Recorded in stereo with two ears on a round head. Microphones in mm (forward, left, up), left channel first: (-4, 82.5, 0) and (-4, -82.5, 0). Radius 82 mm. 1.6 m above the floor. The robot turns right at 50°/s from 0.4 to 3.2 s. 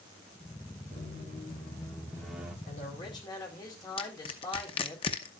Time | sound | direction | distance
0.9 | a squeak | 110° left | 1.5 m
2.7 | a man speaking | 50° left (ahead or behind) | 4.5 m
4.0 | crushing | 30° left (ahead or behind) | 0.9 m